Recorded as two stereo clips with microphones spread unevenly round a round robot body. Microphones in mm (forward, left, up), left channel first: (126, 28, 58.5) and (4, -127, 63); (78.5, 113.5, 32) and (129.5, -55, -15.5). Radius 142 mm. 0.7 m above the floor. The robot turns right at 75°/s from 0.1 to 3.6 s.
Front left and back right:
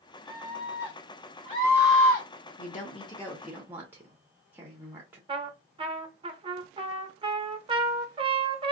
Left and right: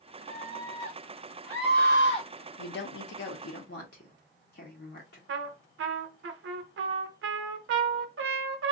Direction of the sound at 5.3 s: 65° right.